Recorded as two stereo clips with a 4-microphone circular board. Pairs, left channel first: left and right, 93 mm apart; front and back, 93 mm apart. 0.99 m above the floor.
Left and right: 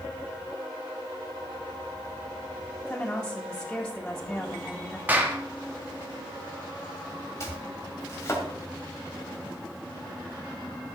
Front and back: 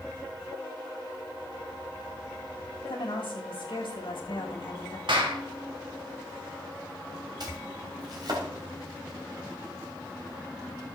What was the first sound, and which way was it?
A woman speaking, 20° left.